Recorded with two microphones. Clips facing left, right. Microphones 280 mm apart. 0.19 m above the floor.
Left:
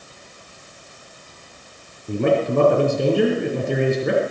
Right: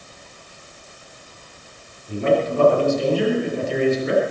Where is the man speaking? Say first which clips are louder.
Left 1 dB; 60° left (ahead or behind), 4 m.